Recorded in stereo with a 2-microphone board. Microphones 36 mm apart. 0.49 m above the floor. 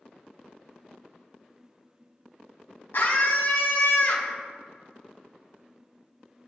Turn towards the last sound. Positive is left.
turn(degrees=65)  # may be behind; listen again after turning